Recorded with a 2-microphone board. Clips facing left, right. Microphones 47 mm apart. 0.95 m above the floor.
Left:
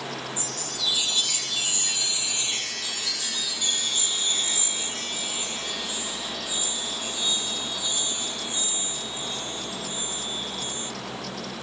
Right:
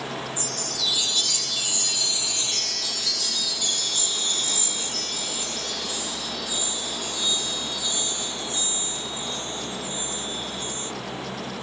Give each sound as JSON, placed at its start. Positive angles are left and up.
{"t": 0.4, "sound": "a chime", "side_deg": 25, "distance_m": 0.9}